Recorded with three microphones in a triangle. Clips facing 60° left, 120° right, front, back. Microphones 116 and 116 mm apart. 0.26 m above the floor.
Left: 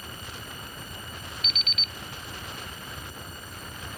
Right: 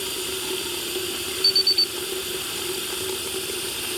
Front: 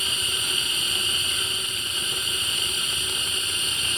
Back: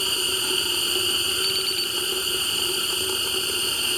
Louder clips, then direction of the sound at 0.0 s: Right 11 dB, back 4 dB; 125° right.